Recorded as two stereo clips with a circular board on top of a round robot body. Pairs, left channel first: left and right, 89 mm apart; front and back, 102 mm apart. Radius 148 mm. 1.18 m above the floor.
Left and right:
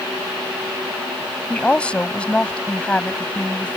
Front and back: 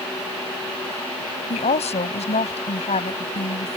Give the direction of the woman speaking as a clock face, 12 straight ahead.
12 o'clock.